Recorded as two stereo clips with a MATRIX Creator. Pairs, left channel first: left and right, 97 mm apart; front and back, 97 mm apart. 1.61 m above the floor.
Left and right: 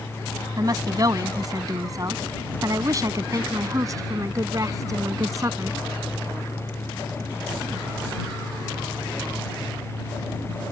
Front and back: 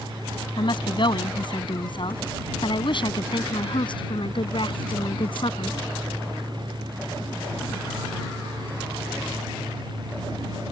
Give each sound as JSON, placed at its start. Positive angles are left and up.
{"t": 0.6, "sound": "a woman speaking", "azimuth_deg": -40}